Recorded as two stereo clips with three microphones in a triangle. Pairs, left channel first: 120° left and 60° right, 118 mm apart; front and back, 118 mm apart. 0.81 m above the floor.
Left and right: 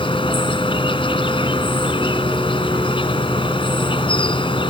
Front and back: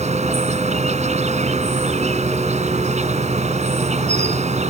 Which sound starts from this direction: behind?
An insect, at 0.0 s.